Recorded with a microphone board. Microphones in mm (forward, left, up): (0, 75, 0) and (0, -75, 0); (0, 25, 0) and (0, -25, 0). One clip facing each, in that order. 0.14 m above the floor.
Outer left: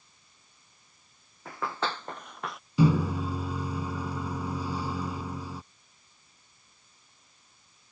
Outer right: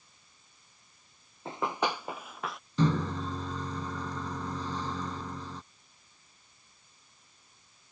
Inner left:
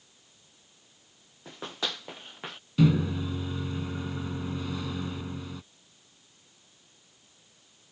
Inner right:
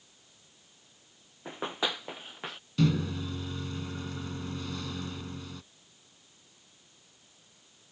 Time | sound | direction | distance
1.4 | running footsteps | 25° right (ahead or behind) | ?
2.8 | a microwave | 10° left (ahead or behind) | ?